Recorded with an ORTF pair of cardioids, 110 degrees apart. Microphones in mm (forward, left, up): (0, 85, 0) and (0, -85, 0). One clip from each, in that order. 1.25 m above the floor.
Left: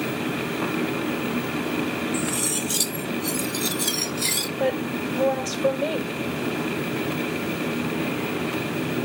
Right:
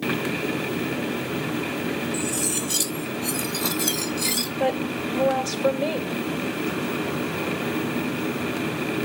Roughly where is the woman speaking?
Ahead.